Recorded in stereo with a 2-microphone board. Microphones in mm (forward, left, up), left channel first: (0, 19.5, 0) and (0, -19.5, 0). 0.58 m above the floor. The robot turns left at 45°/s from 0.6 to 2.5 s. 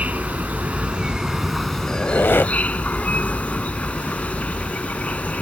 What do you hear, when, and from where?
0.0 s an insect: 135° right; by 5.4 s 140° left
1.9 s a squeak: 65° left (ahead or behind); by 2.5 s 90° left